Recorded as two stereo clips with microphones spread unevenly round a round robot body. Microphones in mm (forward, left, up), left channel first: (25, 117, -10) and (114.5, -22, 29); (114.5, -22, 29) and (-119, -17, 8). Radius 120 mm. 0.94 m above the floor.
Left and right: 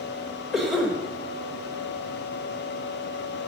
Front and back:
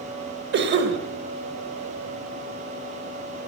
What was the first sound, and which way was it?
A cough, 155° right.